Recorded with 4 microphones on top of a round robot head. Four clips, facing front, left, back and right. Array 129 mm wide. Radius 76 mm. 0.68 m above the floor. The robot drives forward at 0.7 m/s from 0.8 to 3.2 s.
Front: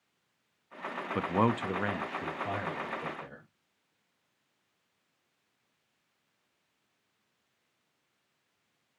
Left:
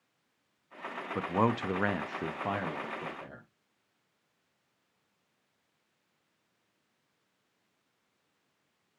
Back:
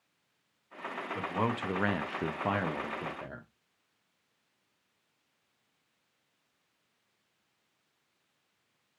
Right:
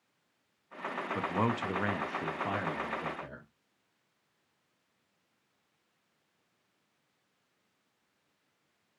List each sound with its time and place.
1.1 s a man speaking: 25° left, 0.6 m; by 3.5 s 170° left, 1.2 m